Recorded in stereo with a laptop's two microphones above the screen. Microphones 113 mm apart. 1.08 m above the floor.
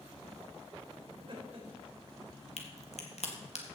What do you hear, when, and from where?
1.1 s laughter: 50° right (ahead or behind), 3.5 m
2.6 s a crack: 70° left (ahead or behind), 1.5 m